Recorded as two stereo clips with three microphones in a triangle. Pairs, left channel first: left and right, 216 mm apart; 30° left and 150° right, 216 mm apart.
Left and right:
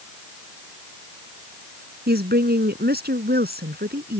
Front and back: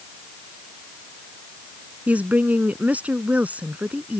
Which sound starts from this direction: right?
A woman speaking, at 2.1 s.